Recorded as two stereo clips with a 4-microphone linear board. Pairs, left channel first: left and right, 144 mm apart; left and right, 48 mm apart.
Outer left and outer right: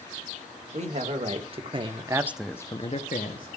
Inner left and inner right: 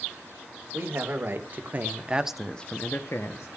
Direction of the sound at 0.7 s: 55° right (ahead or behind).